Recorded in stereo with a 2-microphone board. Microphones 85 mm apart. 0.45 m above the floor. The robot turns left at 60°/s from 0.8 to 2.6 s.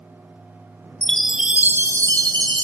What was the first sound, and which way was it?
A chime, 15° left.